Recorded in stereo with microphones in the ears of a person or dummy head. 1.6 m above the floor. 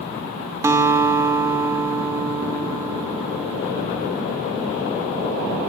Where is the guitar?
15° right (ahead or behind), 2.0 m.